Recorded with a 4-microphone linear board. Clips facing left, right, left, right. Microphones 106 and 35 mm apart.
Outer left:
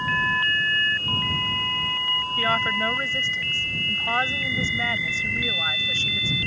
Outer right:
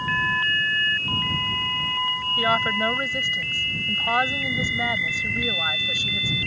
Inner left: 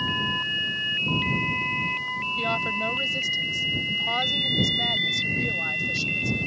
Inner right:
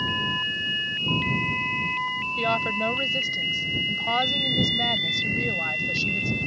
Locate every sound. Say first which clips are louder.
2.4 s a woman speaking: outer right 2 dB, inner right 2 dB; 15° right (ahead or behind)